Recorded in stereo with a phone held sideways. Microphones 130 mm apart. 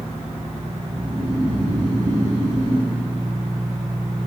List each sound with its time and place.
0.9 s snoring: 75° right (ahead or behind), 3 m